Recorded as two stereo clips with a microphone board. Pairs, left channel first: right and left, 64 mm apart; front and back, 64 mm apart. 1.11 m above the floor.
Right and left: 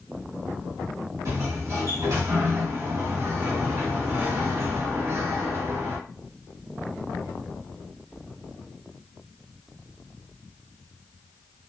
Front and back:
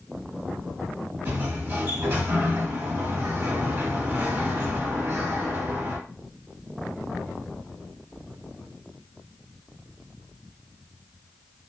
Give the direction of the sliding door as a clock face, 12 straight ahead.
8 o'clock.